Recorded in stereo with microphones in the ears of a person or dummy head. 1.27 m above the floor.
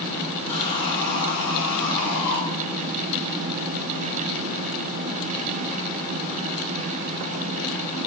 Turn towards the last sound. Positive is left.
turn(degrees=60)  # may be behind; listen again after turning